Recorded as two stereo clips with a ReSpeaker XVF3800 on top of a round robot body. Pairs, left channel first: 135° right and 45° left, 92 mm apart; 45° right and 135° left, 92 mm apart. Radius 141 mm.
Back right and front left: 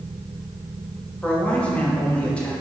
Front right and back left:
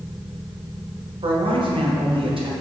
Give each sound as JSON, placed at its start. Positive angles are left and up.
{"t": 1.2, "sound": "a man speaking", "azimuth_deg": 150, "distance_m": 2.0}